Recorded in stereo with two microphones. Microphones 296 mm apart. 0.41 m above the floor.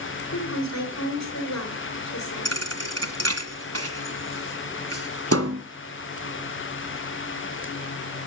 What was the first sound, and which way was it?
A woman speaking, 60° left (ahead or behind).